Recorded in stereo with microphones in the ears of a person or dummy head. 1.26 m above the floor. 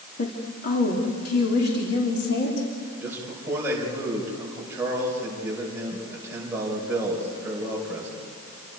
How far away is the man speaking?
About 5 m.